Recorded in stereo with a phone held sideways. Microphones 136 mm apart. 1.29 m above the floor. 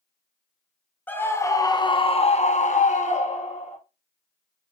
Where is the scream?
15° left (ahead or behind), 1.5 m; by 3.8 s 50° left (ahead or behind), 1.6 m.